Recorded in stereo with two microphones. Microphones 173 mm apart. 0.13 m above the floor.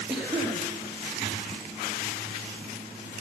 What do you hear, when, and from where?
0.1 s a cough: 5° right (ahead or behind), 2.5 m